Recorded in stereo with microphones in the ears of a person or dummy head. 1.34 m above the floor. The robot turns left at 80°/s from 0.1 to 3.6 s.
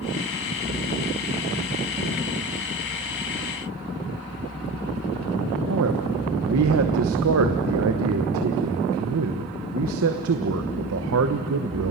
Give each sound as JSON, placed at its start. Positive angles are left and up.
{"t": 5.7, "sound": "a man speaking", "side_deg": -75, "distance_m": 0.9}